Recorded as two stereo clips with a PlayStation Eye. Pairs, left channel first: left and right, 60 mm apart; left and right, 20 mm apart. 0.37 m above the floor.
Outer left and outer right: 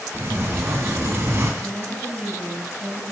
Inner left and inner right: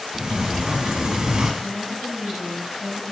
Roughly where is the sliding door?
Right.